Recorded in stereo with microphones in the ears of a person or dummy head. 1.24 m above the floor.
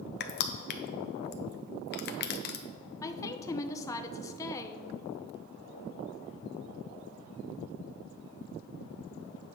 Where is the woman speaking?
10° left (ahead or behind), 0.6 m.